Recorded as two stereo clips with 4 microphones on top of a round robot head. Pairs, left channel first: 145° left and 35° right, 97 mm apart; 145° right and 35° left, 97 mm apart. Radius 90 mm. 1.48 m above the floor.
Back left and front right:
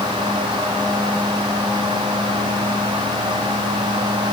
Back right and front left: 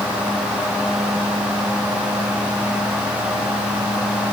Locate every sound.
Only background noise.